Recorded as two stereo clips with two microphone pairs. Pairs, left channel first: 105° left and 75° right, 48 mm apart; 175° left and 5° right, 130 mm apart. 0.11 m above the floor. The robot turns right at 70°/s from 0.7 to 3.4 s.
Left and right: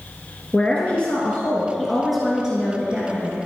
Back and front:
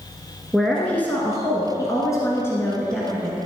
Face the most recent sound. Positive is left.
turn(degrees=-75)